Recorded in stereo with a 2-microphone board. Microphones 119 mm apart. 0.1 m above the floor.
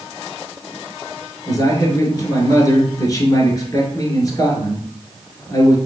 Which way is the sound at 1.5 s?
30° left (ahead or behind).